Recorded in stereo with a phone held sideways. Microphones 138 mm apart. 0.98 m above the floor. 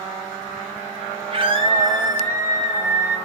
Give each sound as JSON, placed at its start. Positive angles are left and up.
{"t": 1.3, "sound": "a scream", "side_deg": -40, "distance_m": 2.0}